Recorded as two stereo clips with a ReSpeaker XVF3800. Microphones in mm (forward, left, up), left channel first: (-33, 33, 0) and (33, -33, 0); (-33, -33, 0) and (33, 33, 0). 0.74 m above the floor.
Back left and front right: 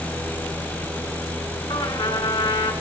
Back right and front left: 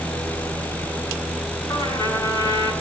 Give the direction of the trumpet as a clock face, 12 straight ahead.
6 o'clock.